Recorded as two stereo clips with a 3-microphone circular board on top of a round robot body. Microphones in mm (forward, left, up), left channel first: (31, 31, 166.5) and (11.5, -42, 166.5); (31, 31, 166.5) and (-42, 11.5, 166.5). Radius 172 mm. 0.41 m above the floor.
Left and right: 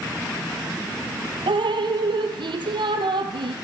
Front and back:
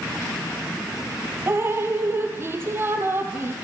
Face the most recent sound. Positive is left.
turn(degrees=-105)